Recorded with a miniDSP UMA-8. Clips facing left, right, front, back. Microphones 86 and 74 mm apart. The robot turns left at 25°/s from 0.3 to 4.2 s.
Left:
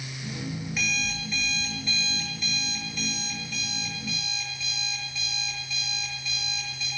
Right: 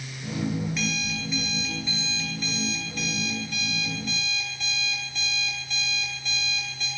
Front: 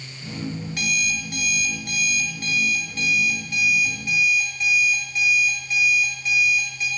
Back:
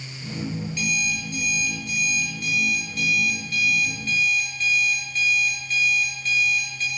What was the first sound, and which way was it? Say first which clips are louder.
An alarm clock: right 2 dB, front 3 dB; 5° left.